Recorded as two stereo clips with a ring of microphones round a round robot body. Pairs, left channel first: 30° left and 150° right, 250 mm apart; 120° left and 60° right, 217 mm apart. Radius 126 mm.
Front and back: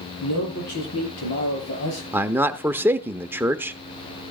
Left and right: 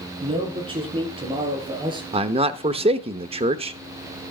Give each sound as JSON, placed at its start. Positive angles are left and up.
{"t": 0.2, "sound": "a man speaking", "azimuth_deg": 5, "distance_m": 8.5}
{"t": 2.1, "sound": "a man speaking", "azimuth_deg": -80, "distance_m": 0.8}